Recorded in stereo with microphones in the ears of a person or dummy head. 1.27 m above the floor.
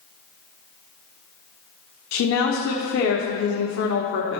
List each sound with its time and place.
2.1 s a woman speaking: 75° left (ahead or behind), 0.8 m